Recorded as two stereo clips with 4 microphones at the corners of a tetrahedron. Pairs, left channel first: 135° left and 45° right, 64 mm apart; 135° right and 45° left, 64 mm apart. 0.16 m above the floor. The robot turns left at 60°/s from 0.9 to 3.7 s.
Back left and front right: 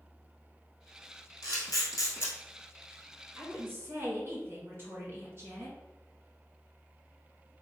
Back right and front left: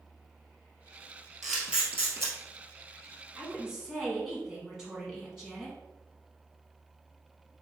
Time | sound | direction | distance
1.4 | a camera shutter | 135° left | 1.8 m
3.4 | a woman speaking | 10° right | 1.9 m